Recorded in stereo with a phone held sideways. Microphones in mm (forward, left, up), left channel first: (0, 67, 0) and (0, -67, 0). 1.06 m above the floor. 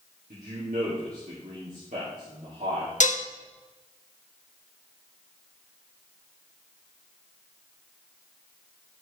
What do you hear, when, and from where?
0.3 s a man speaking: 70° right (ahead or behind), 3 m
3.0 s dishes clattering: 70° left (ahead or behind), 0.8 m